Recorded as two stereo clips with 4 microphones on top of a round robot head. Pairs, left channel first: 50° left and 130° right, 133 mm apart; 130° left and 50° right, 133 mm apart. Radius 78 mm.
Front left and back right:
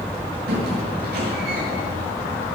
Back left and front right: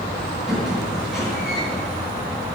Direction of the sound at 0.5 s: 135° right.